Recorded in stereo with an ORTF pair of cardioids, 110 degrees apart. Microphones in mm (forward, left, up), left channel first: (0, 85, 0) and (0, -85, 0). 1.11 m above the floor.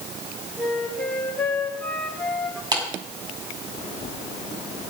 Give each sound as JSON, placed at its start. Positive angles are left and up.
{"t": 0.6, "sound": "a flute", "azimuth_deg": 5, "distance_m": 3.0}
{"t": 2.7, "sound": "a clap", "azimuth_deg": -25, "distance_m": 6.0}